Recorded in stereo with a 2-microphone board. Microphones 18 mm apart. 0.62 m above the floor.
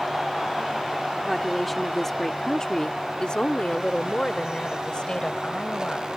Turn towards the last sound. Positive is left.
turn(degrees=60)  # may be behind; listen again after turning